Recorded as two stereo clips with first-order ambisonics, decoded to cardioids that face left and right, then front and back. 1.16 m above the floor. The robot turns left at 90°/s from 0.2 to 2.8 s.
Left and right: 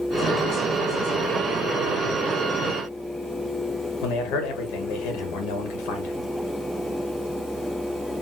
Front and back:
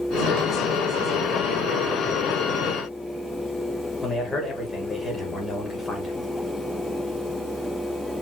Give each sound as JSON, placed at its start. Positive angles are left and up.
{"t": 4.0, "sound": "a man speaking", "azimuth_deg": 80, "distance_m": 1.6}